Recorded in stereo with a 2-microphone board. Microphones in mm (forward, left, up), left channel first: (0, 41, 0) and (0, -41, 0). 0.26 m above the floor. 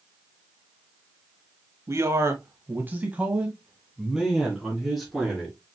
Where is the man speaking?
40° right (ahead or behind), 1.2 m; by 5.5 s 5° left (ahead or behind), 3 m.